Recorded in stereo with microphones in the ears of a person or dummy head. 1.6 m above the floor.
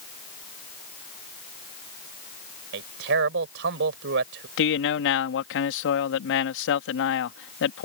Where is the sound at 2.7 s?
65° right (ahead or behind).